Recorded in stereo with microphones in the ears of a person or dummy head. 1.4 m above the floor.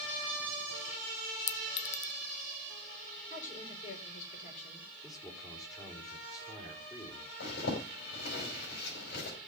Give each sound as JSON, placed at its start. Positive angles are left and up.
{"t": 1.5, "sound": "a clink", "side_deg": 40, "distance_m": 0.5}
{"t": 3.3, "sound": "a woman speaking", "side_deg": 45, "distance_m": 6.0}
{"t": 5.0, "sound": "a man speaking", "side_deg": 20, "distance_m": 5.0}
{"t": 7.4, "sound": "a zipper", "side_deg": 65, "distance_m": 5.0}